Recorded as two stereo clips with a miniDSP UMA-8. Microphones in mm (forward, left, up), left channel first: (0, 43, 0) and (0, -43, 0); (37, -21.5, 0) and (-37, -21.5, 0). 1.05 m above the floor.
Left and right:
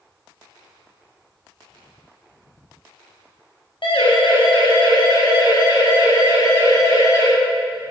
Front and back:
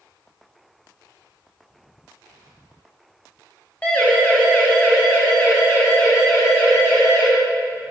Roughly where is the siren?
Left.